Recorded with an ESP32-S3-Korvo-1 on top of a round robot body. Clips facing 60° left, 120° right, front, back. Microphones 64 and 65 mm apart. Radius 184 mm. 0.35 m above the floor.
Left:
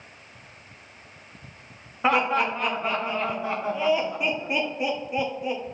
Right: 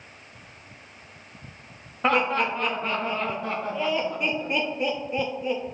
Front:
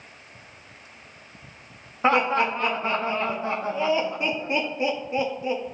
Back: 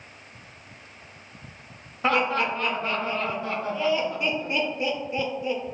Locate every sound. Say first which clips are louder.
2.0 s laughter: left 1 dB, front 2 dB; 15° right, 0.9 m